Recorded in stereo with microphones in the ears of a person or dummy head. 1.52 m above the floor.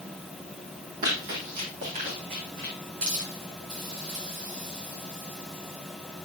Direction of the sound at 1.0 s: 40° right (ahead or behind).